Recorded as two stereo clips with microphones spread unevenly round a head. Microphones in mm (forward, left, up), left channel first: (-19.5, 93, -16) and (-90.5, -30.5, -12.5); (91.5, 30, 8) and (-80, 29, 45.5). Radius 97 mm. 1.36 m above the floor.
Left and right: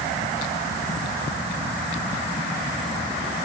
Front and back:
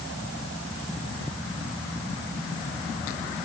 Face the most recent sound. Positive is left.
No sound to turn to.